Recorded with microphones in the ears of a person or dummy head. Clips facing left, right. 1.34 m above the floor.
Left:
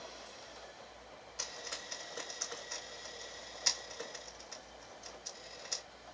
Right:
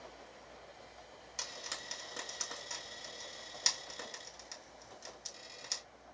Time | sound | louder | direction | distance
1.4 | frying | left 1 dB | 85° right | 2.5 m